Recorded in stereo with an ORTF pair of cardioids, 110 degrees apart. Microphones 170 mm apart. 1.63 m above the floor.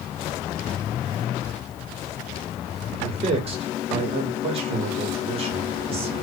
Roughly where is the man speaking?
Ahead right.